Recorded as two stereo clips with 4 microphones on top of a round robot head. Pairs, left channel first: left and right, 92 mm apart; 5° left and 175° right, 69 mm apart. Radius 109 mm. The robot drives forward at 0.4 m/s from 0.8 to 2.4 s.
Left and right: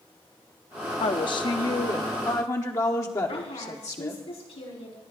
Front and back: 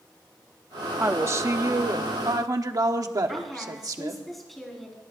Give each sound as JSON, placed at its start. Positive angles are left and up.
{"t": 1.0, "sound": "a woman speaking", "azimuth_deg": 125, "distance_m": 0.7}
{"t": 3.3, "sound": "a woman speaking", "azimuth_deg": 95, "distance_m": 5.0}